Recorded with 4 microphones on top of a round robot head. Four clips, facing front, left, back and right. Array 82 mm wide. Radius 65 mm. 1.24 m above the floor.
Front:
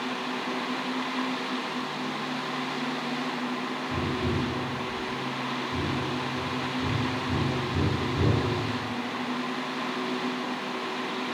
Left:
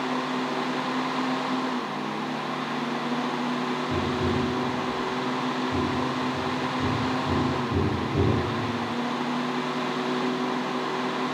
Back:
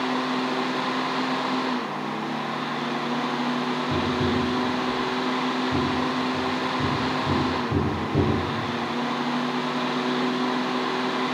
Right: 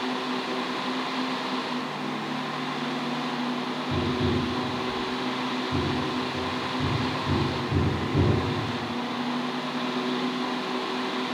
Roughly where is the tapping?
Behind.